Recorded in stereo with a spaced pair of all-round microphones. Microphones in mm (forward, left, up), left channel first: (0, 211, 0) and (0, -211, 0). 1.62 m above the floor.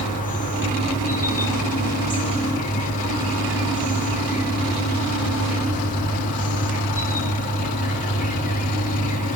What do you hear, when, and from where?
0.0 s an insect: 20° left (ahead or behind), 1.1 m